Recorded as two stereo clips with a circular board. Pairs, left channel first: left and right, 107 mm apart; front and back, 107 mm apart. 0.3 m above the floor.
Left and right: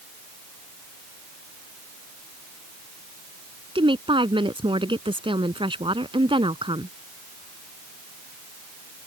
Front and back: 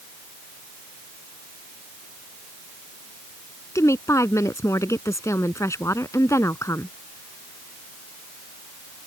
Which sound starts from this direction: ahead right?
A woman speaking, at 3.8 s.